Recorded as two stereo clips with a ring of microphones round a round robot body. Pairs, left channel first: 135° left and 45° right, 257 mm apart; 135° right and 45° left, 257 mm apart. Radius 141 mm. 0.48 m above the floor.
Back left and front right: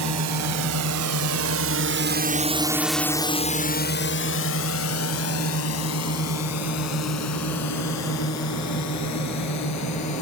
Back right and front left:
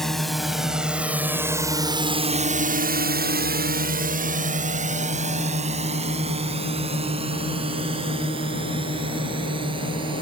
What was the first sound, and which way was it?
A drone, 45° right.